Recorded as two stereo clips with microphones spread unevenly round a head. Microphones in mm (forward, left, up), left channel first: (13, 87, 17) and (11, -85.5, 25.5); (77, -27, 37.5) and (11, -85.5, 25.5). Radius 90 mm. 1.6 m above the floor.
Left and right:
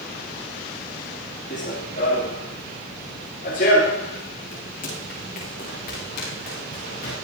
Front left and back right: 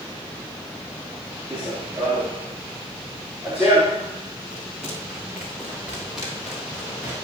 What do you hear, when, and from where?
1.5 s running footsteps: 140° left, 6 m; by 7.2 s 135° left, 10.5 m